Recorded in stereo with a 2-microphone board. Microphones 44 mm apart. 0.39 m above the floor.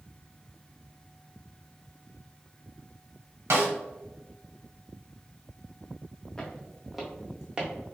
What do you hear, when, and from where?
3.5 s a snare drum: 75° right (ahead or behind), 1.3 m
6.4 s footsteps: 15° left (ahead or behind), 1.0 m; by 7.7 s 20° right (ahead or behind), 1.2 m